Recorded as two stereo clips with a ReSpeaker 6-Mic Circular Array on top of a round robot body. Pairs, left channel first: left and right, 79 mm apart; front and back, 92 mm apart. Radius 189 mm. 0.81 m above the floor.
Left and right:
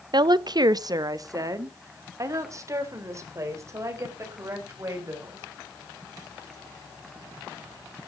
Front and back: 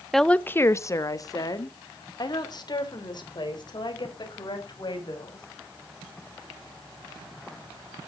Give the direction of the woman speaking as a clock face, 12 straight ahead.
3 o'clock.